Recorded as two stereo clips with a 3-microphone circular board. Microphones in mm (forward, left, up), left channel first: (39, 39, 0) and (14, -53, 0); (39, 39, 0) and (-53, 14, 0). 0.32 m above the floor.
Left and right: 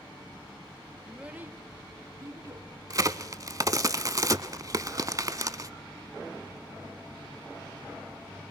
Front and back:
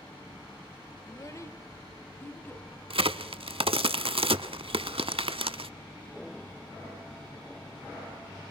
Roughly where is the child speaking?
Ahead.